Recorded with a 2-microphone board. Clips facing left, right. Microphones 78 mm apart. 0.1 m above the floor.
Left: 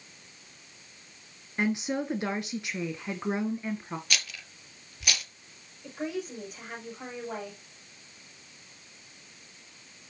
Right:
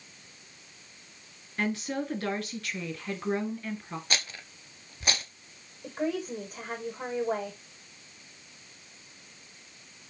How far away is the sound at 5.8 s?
About 6 m.